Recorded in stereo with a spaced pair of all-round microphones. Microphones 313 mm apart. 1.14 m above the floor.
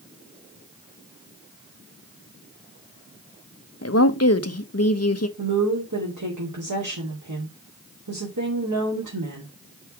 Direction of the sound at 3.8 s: 50° left (ahead or behind).